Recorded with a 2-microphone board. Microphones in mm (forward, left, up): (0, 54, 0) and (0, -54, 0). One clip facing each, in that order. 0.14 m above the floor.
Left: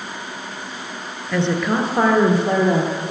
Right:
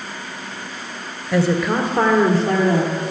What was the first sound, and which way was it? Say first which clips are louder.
A woman speaking: right 2 dB; 10° right (ahead or behind).